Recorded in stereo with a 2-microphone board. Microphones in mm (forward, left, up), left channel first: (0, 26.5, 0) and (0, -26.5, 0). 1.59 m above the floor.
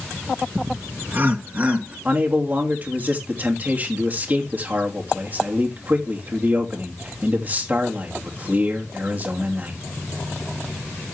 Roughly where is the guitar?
I don't hear a guitar.